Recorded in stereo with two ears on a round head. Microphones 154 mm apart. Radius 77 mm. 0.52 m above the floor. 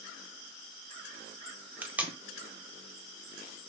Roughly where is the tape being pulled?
Centre.